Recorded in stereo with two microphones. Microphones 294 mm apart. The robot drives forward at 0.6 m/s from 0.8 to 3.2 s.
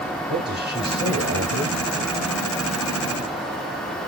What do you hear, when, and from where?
0.3 s a man speaking: 35° right (ahead or behind), 1.9 m; by 1.8 s 40° right (ahead or behind), 1.7 m